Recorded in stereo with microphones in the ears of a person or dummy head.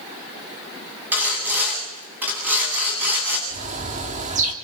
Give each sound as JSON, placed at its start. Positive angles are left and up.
{"t": 1.1, "sound": "sawing", "side_deg": -10, "distance_m": 8.5}
{"t": 3.5, "sound": "a bird", "side_deg": -35, "distance_m": 2.0}